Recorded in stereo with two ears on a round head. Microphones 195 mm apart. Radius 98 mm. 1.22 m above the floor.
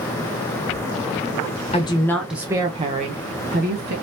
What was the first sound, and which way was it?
A woman speaking, 30° left (ahead or behind).